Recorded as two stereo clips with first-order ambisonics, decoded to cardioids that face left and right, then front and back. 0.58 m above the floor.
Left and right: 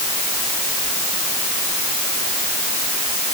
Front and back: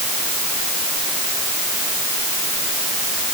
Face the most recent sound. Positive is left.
No sound to turn to.